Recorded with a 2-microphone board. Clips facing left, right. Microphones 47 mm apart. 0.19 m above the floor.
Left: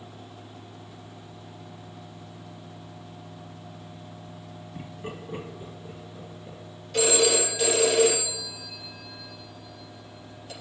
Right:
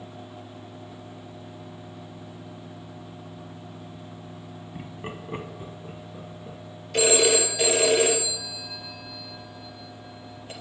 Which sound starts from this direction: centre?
Laughter, at 4.8 s.